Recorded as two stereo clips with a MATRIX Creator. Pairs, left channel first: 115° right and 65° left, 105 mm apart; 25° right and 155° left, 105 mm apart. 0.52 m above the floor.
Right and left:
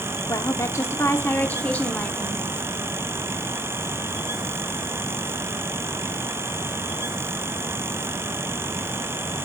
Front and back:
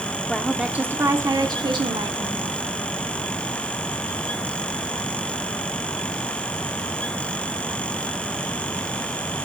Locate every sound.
0.3 s a woman speaking: 105° right, 0.8 m; by 2.5 s 165° left, 1.4 m